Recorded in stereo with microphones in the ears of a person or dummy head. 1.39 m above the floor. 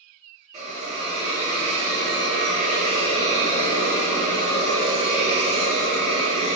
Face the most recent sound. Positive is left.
turn(degrees=-35)  # may be behind; listen again after turning